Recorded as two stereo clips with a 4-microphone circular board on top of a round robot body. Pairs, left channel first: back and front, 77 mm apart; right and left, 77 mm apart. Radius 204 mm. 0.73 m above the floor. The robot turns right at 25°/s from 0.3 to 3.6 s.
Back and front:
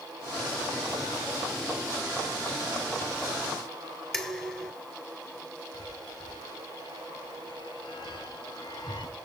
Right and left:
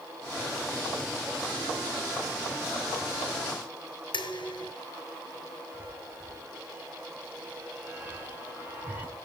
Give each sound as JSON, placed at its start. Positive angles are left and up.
{"t": 4.1, "sound": "dishes clattering", "azimuth_deg": -95, "distance_m": 3.0}
{"t": 5.7, "sound": "a chime", "azimuth_deg": 160, "distance_m": 5.0}